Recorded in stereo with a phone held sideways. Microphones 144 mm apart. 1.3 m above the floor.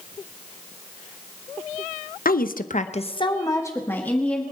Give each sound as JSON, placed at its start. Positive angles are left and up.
{"t": 2.2, "sound": "a woman speaking", "side_deg": 80, "distance_m": 0.9}